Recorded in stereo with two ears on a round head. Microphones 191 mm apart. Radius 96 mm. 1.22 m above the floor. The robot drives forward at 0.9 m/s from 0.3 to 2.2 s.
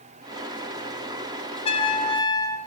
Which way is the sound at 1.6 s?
25° left (ahead or behind).